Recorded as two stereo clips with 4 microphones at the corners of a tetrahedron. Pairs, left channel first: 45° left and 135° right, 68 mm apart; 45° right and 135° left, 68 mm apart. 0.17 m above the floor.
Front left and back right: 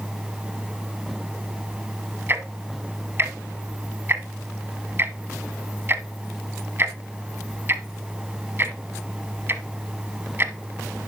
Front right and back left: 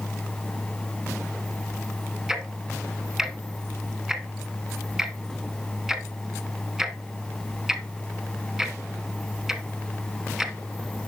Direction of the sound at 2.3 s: 150° right.